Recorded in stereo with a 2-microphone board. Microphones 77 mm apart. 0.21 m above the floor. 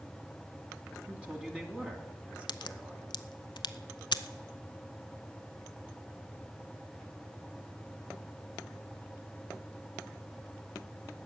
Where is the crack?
75° left (ahead or behind), 0.5 m.